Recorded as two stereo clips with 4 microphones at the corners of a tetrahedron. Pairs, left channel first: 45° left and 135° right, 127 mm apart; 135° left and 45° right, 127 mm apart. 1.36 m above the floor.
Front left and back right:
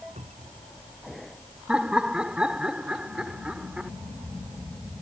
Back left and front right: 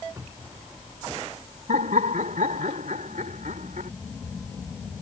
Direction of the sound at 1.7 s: 50° right.